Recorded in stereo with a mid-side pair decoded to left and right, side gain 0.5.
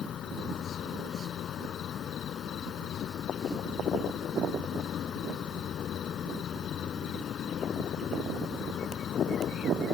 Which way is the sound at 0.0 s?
55° left.